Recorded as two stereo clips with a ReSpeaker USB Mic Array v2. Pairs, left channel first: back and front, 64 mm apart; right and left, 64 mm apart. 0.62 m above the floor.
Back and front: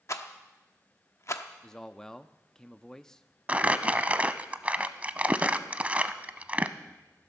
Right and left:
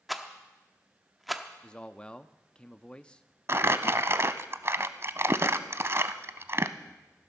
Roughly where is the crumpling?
Ahead left.